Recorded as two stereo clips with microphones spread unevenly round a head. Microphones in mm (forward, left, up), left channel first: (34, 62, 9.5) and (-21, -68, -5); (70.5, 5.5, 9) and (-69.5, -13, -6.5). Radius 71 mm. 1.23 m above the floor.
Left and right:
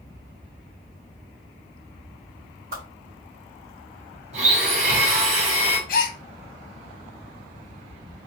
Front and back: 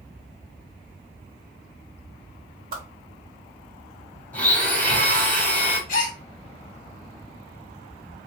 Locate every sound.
2.7 s a whoosh: 140° right, 1.8 m
4.3 s a blender: 70° right, 1.2 m
5.9 s a gasp: 45° left, 0.8 m